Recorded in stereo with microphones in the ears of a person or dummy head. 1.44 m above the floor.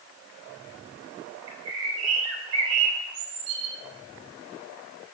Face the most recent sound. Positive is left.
turn(degrees=-80)